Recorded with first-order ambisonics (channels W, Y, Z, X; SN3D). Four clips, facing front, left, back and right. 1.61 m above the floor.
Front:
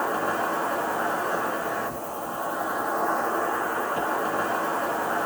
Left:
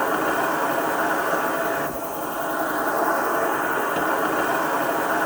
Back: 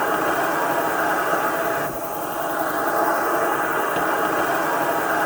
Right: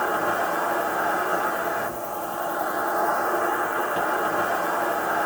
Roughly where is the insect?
Behind.